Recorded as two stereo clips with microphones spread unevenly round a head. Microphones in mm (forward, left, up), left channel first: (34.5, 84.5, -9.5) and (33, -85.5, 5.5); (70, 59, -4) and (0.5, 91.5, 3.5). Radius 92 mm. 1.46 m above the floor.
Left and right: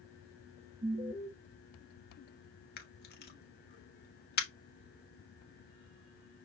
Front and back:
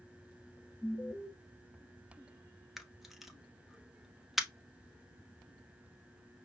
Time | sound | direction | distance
0.8 | an alarm | 125° right | 1.0 m
2.8 | a camera shutter | 75° left | 1.2 m